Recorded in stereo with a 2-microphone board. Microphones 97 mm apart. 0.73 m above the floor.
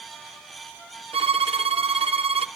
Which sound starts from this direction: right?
A violin, at 1.1 s.